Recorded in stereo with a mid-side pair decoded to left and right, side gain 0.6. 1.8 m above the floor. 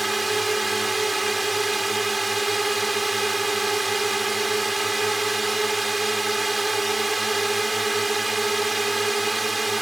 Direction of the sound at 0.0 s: 15° right.